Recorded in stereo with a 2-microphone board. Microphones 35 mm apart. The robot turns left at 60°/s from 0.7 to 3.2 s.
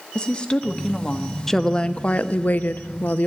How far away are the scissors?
No scissors in this recording.